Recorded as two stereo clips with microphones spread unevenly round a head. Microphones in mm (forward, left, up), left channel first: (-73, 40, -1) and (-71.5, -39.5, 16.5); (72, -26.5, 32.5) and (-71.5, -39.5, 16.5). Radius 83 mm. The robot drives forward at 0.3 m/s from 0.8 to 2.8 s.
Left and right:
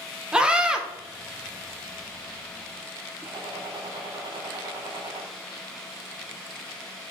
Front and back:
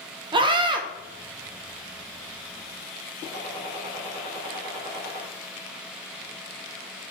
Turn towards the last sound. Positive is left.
turn(degrees=-115)